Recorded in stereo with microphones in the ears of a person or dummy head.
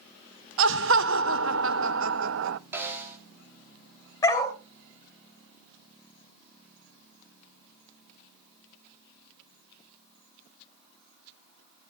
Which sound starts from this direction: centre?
A snare drum, at 2.7 s.